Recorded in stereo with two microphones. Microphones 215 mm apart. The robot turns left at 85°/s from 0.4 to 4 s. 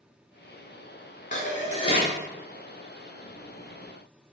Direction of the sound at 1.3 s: 105° left.